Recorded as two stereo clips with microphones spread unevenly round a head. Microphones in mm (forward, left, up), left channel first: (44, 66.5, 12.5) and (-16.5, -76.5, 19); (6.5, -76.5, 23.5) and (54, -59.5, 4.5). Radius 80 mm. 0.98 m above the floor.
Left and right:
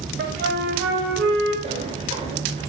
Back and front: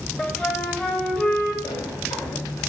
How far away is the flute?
About 4.5 m.